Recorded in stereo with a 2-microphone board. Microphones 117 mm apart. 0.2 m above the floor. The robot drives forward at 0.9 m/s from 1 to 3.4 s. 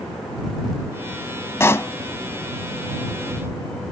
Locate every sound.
1.6 s a pop: 20° left (ahead or behind)